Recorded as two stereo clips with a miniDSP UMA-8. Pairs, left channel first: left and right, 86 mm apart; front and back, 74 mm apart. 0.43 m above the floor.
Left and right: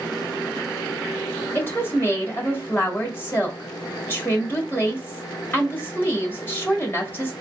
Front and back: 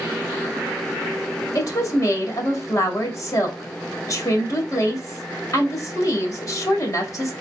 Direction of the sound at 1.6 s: 30° left.